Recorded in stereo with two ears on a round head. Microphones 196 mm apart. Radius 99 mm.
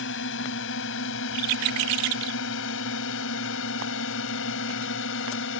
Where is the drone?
60° left (ahead or behind); by 5.6 s 65° left (ahead or behind).